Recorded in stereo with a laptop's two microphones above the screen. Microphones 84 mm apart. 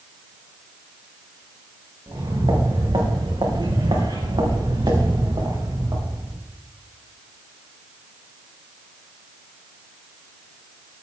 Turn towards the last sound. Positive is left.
turn(degrees=-50)  # may be behind; listen again after turning